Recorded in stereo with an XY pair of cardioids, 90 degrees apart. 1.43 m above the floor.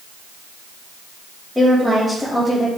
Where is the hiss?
I don't hear a hiss.